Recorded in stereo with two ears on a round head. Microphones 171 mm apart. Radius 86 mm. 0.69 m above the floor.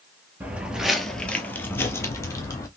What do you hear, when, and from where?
0.4 s footsteps: 10° right (ahead or behind), 0.7 m; by 2.7 s 20° left (ahead or behind), 1.1 m